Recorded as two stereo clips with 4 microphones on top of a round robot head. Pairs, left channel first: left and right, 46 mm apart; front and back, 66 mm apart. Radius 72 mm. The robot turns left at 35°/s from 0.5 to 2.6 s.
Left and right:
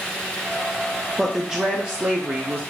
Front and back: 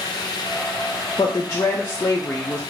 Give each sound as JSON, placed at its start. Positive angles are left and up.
{"t": 1.2, "sound": "a woman speaking", "azimuth_deg": -15, "distance_m": 0.8}